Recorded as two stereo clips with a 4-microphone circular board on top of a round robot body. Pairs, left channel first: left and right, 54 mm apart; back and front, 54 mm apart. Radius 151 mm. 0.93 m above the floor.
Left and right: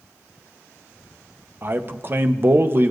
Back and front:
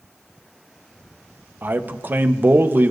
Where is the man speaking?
45° right, 1.0 m.